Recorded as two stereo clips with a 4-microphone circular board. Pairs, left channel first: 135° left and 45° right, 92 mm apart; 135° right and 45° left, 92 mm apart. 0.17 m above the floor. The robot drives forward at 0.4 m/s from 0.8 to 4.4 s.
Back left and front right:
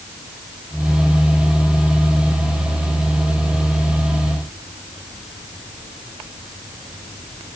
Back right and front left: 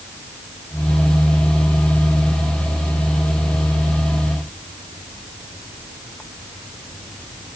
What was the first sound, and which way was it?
Only background noise.